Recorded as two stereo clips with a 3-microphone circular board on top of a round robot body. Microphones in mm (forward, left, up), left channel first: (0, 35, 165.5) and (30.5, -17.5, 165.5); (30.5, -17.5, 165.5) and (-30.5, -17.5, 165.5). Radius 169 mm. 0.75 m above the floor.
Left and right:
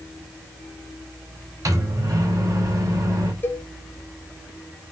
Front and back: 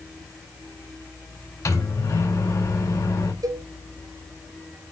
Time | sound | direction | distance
1.6 | a microwave | 30° right | 4 m
3.4 | a cowbell | 175° left | 2.5 m